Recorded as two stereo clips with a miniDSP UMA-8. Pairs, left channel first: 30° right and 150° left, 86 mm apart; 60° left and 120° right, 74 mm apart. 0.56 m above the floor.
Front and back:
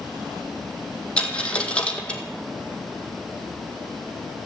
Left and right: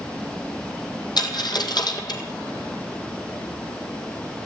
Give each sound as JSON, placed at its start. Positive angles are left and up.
{"t": 1.2, "sound": "a dropped coin", "azimuth_deg": 45, "distance_m": 2.0}